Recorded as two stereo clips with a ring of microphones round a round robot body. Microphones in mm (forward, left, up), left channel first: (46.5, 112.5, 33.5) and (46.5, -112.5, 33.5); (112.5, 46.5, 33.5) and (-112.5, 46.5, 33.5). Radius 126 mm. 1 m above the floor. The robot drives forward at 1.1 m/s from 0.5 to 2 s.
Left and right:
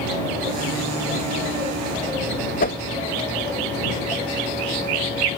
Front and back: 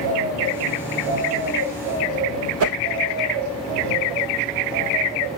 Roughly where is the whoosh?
Behind left.